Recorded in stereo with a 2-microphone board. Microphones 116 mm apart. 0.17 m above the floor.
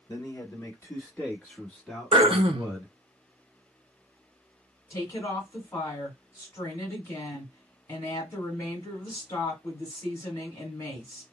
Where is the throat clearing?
55° right (ahead or behind), 0.6 m.